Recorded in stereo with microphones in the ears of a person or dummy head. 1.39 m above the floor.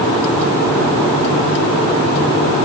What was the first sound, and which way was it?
Only background noise.